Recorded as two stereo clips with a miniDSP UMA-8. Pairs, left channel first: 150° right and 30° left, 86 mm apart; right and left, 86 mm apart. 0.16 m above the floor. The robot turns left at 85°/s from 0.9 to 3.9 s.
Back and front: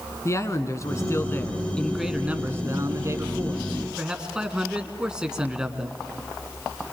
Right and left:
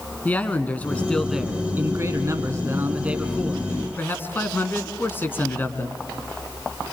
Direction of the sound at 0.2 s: 150° right.